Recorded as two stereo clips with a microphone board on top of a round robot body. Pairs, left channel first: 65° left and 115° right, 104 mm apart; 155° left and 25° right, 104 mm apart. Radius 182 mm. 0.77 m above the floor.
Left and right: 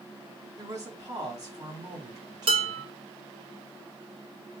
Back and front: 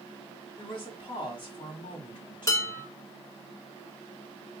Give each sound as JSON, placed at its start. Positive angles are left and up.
{"t": 0.6, "sound": "a woman speaking", "azimuth_deg": -165, "distance_m": 2.5}
{"t": 2.5, "sound": "dishes clattering", "azimuth_deg": -145, "distance_m": 1.9}